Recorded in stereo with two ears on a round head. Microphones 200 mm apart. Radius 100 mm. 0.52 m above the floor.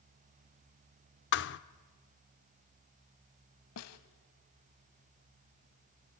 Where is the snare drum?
80° left, 1.2 m.